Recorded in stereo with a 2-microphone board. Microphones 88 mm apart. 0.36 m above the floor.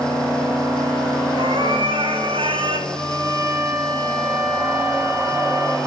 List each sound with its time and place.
1.4 s a cat meowing: 75° right (ahead or behind), 3.5 m
2.9 s a violin: 45° right (ahead or behind), 7.5 m